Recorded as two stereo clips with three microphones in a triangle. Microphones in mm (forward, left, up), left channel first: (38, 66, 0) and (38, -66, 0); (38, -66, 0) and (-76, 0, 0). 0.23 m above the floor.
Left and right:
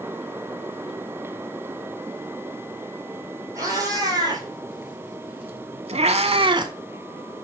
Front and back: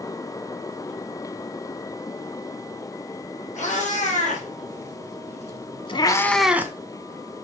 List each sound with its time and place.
3.5 s a cat meowing: 30° right, 3 m; by 6.7 s 145° right, 0.9 m